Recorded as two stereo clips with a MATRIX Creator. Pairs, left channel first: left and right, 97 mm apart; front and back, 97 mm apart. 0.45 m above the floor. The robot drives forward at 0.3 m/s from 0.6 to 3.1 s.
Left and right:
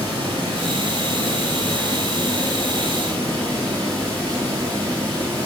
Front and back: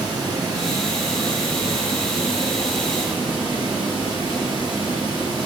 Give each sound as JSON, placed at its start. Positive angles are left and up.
{"t": 0.0, "sound": "running water", "azimuth_deg": -130, "distance_m": 3.0}